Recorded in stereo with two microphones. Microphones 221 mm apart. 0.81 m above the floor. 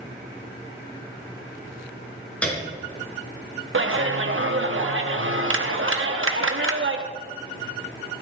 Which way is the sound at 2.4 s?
5° left (ahead or behind).